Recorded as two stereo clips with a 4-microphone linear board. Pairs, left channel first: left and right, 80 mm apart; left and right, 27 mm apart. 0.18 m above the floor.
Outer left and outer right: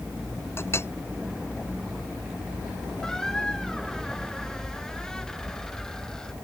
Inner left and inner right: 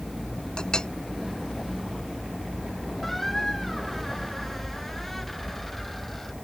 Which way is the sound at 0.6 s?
30° left (ahead or behind).